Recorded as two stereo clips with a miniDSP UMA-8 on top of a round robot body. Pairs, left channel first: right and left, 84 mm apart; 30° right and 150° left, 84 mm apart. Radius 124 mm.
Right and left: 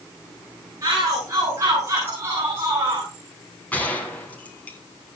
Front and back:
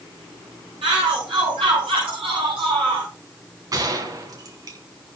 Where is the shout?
140° left, 9.5 m; by 3.1 s 150° left, 7 m.